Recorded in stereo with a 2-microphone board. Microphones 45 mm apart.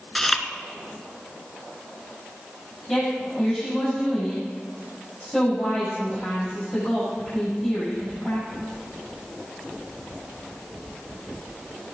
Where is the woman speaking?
15° left (ahead or behind), 7 m.